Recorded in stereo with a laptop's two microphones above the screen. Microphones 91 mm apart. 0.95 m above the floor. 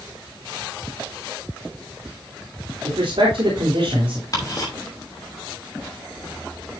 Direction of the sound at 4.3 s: 40° left (ahead or behind).